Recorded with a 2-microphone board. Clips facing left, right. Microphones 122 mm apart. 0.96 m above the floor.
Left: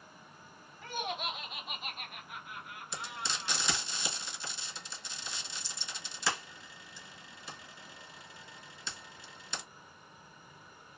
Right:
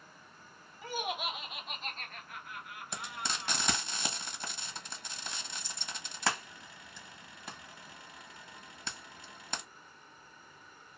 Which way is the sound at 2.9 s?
50° right (ahead or behind).